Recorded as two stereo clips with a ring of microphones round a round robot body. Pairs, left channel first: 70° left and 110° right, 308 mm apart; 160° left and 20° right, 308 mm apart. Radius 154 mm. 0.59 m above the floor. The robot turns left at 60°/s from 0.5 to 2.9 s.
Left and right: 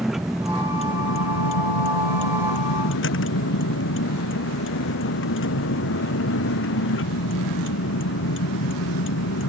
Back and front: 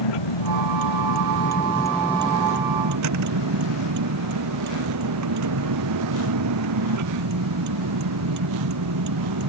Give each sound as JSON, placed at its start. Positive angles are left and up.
{"t": 0.0, "sound": "a vehicle", "azimuth_deg": 160}